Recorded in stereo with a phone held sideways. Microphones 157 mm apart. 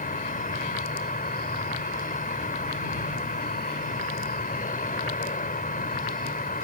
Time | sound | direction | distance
0.0 | an insect | 65° left (ahead or behind) | ?